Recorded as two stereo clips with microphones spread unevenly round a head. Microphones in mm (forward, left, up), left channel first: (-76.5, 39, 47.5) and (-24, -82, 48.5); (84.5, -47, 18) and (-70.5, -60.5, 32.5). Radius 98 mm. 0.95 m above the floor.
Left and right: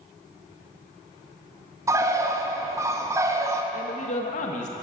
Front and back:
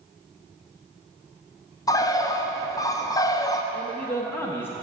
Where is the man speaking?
80° left, 0.6 m.